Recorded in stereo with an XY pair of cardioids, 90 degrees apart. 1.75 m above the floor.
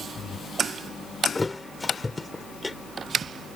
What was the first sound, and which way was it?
A thud, 20° left.